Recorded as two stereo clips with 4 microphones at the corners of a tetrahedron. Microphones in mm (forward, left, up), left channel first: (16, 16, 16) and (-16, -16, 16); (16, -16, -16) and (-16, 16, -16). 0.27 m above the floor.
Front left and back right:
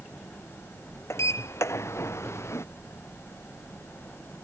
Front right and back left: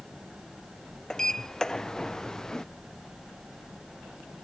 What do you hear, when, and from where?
1.1 s a sliding door: 30° left